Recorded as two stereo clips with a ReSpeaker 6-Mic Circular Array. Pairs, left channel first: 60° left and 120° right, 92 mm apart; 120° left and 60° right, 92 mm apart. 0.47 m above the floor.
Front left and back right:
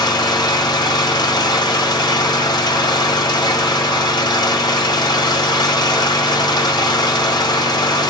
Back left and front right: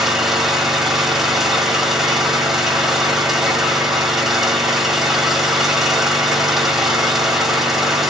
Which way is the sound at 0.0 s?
25° left.